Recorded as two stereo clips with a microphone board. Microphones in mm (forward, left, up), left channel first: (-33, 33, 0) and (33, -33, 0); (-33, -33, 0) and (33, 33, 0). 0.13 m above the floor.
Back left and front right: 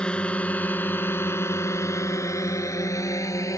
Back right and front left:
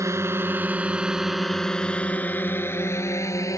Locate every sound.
0.0 s a drone: 65° left; by 3.6 s straight behind